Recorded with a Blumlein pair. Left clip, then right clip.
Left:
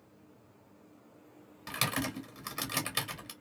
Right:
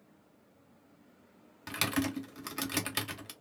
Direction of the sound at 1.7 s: Straight ahead.